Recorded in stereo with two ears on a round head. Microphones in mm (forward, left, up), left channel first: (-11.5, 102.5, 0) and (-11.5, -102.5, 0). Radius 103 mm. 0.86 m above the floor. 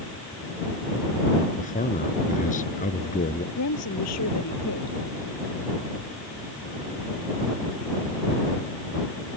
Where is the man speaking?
35° left (ahead or behind).